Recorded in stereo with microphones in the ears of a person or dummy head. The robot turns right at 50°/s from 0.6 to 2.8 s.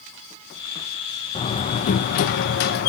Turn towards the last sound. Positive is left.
turn(degrees=110)